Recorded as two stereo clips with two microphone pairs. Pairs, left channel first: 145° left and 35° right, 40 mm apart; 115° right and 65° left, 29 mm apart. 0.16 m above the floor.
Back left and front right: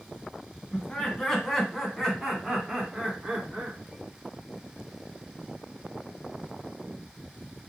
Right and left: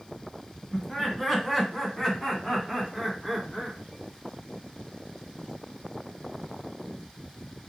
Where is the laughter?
175° right, 1.8 m; by 3.8 s 30° right, 1.8 m.